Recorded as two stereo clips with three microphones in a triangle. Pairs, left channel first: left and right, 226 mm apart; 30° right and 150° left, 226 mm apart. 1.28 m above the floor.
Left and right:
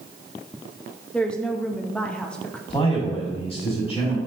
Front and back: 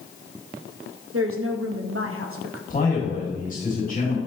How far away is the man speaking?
About 3 m.